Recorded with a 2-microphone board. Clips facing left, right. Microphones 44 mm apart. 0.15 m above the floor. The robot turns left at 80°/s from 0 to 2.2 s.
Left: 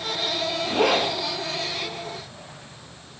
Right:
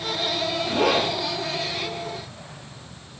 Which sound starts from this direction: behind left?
A zipper, at 0.7 s.